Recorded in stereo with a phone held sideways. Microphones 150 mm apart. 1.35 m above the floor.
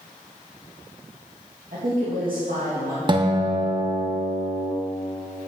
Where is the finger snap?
I don't hear a finger snap.